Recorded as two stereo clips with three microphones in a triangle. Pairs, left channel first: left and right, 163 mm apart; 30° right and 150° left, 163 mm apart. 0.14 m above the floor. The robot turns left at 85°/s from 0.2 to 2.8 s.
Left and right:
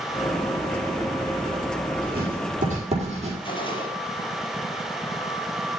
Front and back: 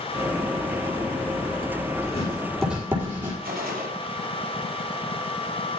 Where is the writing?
70° right, 4 m; by 3.3 s 135° right, 4 m.